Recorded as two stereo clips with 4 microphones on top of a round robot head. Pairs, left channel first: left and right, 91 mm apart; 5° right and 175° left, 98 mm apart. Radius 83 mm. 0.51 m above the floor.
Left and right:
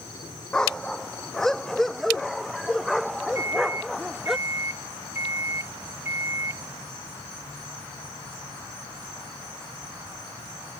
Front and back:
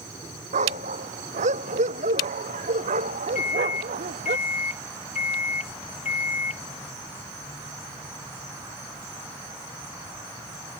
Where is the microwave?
20° right.